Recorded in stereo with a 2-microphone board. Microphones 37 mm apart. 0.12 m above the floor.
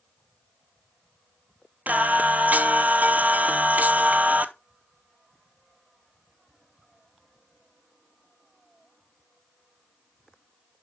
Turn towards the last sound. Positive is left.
turn(degrees=-50)  # may be behind; listen again after turning